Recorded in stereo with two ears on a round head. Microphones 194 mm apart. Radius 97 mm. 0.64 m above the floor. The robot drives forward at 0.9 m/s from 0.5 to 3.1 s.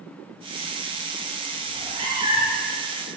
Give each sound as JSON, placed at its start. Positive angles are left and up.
{"t": 1.7, "sound": "a cat meowing", "side_deg": -30, "distance_m": 3.0}